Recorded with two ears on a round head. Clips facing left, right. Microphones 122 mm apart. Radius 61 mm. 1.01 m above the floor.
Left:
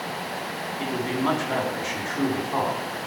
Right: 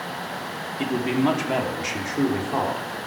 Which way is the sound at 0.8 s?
25° right (ahead or behind).